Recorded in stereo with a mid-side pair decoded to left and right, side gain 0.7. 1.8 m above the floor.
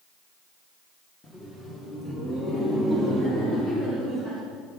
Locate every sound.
1.2 s laughter: 5° left, 2 m; by 4.4 s 30° left, 6.5 m